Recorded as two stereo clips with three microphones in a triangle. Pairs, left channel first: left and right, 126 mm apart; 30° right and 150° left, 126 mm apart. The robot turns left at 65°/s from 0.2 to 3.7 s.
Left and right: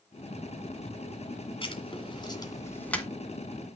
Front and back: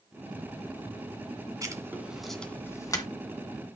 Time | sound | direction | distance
1.6 | writing | 105° left | 2 m